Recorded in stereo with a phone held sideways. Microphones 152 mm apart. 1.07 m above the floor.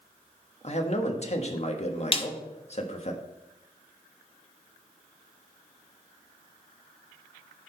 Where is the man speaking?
45° left (ahead or behind), 1.4 m.